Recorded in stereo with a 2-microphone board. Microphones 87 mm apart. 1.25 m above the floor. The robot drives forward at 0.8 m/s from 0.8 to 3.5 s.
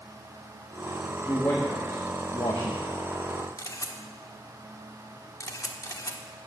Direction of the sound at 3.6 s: 40° left (ahead or behind).